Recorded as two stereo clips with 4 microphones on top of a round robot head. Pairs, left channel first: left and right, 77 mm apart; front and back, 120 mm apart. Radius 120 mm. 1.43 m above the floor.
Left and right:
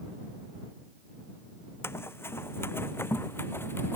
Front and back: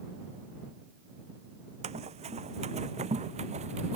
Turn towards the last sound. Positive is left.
turn(degrees=150)